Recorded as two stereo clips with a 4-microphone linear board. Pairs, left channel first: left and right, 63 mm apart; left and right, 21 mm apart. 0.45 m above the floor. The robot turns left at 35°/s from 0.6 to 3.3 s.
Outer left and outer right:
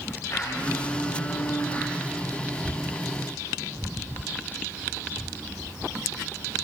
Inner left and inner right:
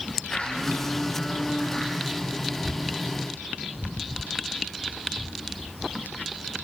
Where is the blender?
60° left, 9 m; by 1.9 s 15° left, 9 m.